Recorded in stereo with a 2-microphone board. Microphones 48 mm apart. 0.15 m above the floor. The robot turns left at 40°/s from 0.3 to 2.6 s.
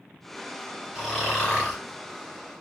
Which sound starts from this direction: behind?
Snoring, at 0.9 s.